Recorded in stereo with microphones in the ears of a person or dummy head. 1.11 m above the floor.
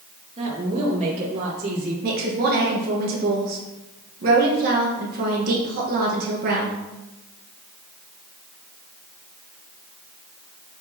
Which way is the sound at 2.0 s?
55° right (ahead or behind).